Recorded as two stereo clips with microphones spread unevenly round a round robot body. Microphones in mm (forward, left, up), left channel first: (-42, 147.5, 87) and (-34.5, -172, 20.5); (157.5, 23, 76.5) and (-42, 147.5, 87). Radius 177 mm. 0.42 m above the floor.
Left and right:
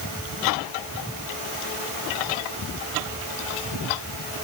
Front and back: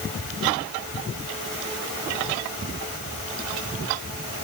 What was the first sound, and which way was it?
Only background noise.